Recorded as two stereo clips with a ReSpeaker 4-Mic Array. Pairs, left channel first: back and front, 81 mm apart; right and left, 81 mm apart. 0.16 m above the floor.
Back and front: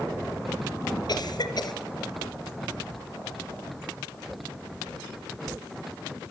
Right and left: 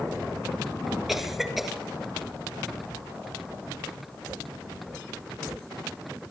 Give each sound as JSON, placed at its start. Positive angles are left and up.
{"t": 1.1, "sound": "a cough", "azimuth_deg": 175, "distance_m": 3.0}